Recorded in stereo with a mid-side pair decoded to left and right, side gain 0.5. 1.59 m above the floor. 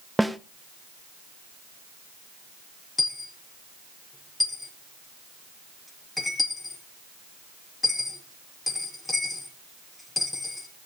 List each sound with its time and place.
0.2 s a snare drum: straight ahead, 1.0 m
3.0 s a dropped coin: 15° left, 7 m